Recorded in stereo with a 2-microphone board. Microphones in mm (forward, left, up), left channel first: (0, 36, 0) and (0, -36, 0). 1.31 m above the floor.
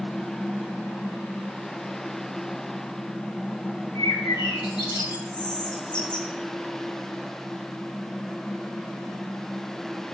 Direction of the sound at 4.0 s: 80° left.